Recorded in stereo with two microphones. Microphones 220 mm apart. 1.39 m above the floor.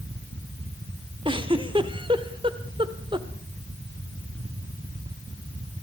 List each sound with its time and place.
1.2 s a giggle: 25° right (ahead or behind), 1.3 m